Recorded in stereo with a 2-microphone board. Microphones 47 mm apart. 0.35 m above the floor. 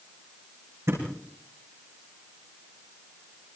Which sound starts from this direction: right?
A thud, at 0.9 s.